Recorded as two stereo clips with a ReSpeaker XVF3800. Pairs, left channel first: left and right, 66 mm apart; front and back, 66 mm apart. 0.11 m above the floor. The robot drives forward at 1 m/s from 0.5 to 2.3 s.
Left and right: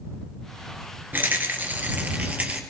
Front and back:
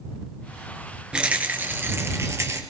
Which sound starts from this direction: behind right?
A rattle, at 1.1 s.